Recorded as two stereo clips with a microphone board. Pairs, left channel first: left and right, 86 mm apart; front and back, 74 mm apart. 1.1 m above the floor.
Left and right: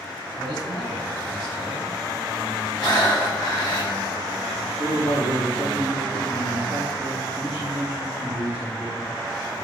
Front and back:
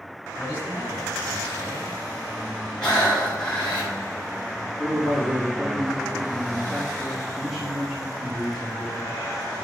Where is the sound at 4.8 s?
95° left, 2.5 m.